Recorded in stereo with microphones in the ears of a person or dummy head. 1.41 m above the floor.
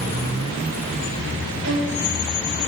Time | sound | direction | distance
1.6 | a violin | 60° right (ahead or behind) | 5.5 m